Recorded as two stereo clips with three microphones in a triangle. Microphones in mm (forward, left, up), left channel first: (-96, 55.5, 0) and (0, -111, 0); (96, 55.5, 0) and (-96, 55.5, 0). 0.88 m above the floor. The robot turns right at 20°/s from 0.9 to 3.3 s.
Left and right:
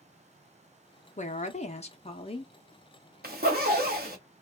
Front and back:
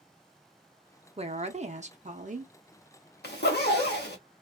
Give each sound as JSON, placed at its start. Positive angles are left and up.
{"t": 1.2, "sound": "a woman speaking", "azimuth_deg": 140, "distance_m": 0.6}
{"t": 3.2, "sound": "a zipper", "azimuth_deg": -25, "distance_m": 0.9}